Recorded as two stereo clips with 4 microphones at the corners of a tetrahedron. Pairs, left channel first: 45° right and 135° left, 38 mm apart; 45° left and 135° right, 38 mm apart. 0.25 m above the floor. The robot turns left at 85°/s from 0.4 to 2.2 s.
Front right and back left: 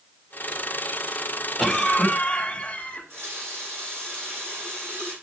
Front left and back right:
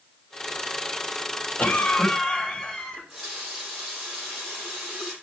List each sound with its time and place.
1.6 s a cough: 55° left, 1.8 m; by 3.0 s straight ahead, 1.8 m
2.9 s a running tap: 140° left, 6.5 m